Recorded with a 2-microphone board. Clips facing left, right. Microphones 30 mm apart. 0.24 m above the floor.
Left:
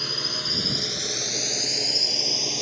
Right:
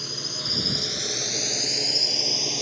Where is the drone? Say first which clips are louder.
Left 3 dB; 50° left (ahead or behind); by 2.6 s 5° left (ahead or behind).